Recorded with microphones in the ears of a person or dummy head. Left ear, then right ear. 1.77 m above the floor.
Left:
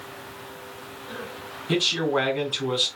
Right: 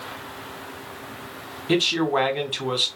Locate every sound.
1.7 s a man speaking: 20° right (ahead or behind), 0.7 m